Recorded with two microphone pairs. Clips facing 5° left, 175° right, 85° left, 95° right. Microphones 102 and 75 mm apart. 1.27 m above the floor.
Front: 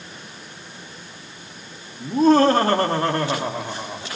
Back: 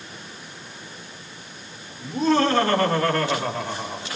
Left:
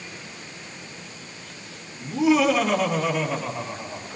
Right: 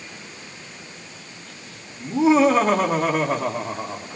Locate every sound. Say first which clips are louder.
2.0 s laughter: front 5 dB, right 3 dB; 35° right, 3 m; by 4.1 s 75° right, 3.5 m